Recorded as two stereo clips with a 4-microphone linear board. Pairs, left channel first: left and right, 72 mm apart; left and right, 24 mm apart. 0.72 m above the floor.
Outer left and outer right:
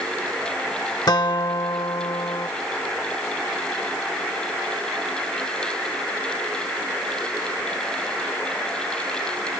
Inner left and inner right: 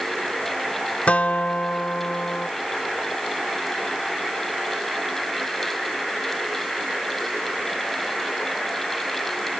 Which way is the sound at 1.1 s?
70° left (ahead or behind).